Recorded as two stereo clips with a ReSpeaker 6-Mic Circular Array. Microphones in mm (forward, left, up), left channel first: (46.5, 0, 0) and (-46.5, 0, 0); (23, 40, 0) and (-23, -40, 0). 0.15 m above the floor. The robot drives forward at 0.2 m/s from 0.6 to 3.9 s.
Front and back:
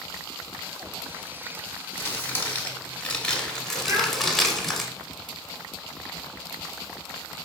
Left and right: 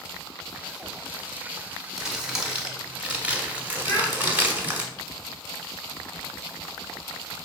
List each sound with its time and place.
2.0 s crumpling: 40° right, 0.9 m; by 4.9 s 80° right, 0.8 m
3.9 s a child speaking: 120° left, 2.5 m